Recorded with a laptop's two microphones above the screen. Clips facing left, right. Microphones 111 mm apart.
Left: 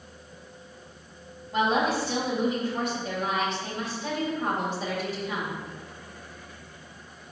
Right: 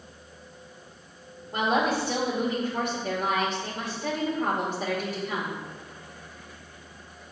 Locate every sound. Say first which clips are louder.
1.5 s a woman speaking: even; 50° right (ahead or behind), 2.5 m